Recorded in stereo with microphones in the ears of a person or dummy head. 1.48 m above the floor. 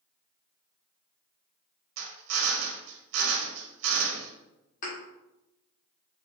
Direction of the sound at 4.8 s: 50° left (ahead or behind).